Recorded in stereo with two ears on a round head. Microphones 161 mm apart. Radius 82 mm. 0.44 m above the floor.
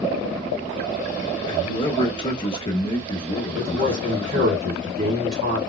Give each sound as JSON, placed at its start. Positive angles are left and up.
{"t": 1.4, "sound": "a man speaking", "side_deg": 30, "distance_m": 0.9}
{"t": 3.5, "sound": "a man speaking", "side_deg": -35, "distance_m": 1.8}